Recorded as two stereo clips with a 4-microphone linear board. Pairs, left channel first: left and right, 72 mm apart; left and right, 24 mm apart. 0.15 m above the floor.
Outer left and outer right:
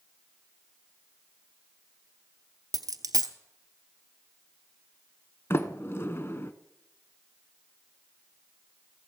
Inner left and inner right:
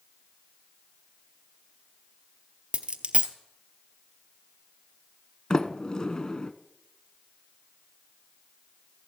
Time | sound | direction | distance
2.7 | a dropped coin | 55° right (ahead or behind) | 0.9 m
5.5 | a sliding door | 35° left (ahead or behind) | 0.8 m